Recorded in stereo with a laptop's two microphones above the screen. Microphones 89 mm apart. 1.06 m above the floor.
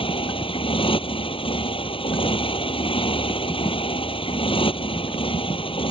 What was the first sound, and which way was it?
A motorcycle, 85° left.